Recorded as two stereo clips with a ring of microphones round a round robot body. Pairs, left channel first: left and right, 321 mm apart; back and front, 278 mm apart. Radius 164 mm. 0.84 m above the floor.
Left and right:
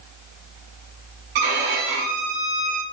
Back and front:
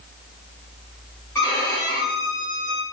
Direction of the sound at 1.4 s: 100° right.